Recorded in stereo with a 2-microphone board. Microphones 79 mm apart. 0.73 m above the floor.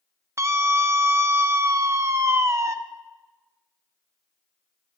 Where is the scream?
40° right (ahead or behind), 0.6 m.